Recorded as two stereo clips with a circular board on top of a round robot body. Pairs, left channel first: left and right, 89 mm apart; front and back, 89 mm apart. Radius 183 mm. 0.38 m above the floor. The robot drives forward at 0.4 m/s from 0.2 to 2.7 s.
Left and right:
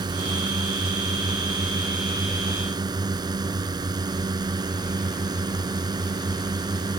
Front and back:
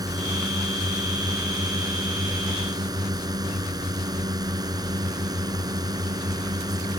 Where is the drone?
135° right.